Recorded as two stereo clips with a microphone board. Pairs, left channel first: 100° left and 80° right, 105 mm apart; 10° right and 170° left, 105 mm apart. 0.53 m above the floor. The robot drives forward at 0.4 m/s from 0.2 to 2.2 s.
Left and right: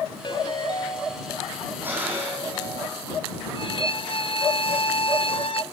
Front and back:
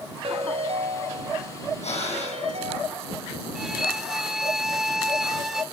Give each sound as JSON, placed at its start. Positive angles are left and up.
{"t": 0.2, "sound": "a ringtone", "azimuth_deg": 140, "distance_m": 1.4}
{"t": 1.8, "sound": "breathing", "azimuth_deg": -5, "distance_m": 6.0}
{"t": 3.5, "sound": "a violin", "azimuth_deg": 85, "distance_m": 0.6}